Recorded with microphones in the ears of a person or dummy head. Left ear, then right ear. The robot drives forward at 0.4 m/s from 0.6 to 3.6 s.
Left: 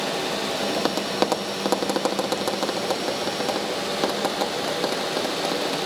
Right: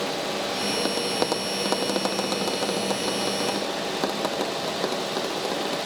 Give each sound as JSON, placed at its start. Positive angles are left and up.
{"t": 0.8, "sound": "tapping", "side_deg": 15, "distance_m": 0.8}